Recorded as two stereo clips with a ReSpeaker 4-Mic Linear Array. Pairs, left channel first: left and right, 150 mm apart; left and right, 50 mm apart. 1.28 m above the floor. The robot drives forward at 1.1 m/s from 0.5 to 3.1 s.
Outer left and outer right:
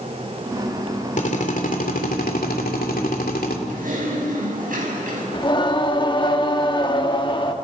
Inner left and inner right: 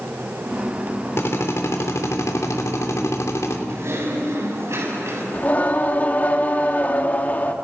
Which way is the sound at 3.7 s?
70° right (ahead or behind).